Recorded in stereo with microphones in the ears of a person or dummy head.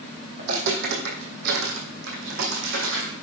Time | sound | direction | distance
0.4 | footsteps | 55° right (ahead or behind) | 3.5 m